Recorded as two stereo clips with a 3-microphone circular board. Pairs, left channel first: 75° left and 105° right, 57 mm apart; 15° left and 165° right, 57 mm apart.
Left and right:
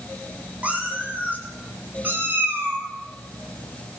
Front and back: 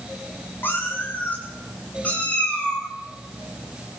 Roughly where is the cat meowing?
Ahead right.